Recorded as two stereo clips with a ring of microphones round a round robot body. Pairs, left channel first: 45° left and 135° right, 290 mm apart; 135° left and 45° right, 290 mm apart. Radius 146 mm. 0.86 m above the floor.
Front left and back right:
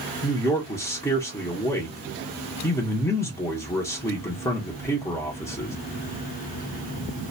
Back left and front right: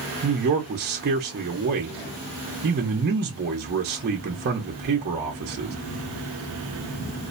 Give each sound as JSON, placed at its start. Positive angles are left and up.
{"t": 0.2, "sound": "a man speaking", "azimuth_deg": -30, "distance_m": 0.6}